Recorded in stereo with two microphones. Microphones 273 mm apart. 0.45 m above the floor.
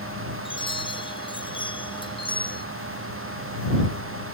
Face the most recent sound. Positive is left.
turn(degrees=15)  # may be behind; listen again after turning